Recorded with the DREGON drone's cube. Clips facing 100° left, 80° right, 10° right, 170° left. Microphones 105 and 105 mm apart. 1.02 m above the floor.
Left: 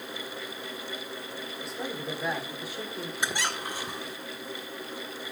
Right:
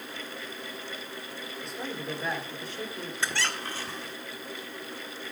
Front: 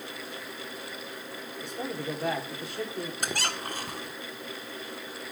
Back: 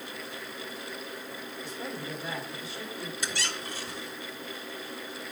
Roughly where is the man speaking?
Ahead.